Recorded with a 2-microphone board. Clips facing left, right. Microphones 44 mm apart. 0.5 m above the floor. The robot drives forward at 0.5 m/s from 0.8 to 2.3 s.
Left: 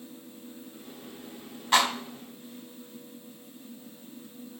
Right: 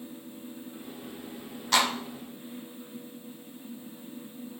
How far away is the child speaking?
No child speaking in this recording.